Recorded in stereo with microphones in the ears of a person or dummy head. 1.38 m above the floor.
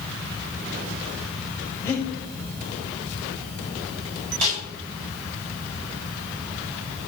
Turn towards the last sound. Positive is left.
turn(degrees=-40)  # may be behind; listen again after turning